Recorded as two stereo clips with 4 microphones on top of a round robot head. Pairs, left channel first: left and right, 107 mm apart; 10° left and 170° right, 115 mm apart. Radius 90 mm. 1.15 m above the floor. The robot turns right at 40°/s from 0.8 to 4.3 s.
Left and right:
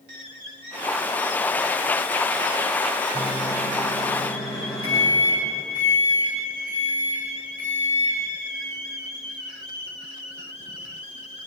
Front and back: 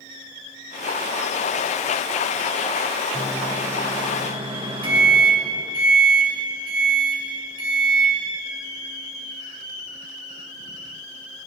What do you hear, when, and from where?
3.1 s a microwave: 100° left, 5 m; by 8.2 s 150° left, 5 m